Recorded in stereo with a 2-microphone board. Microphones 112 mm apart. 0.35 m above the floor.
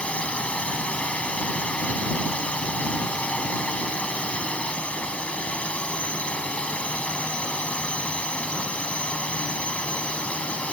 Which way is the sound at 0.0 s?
10° left (ahead or behind).